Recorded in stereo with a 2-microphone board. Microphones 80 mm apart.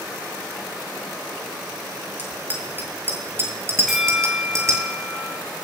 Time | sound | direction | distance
2.2 | a bicycle bell | 20° right (ahead or behind) | 7.5 m
3.9 | a bell | centre (ahead or behind) | 3 m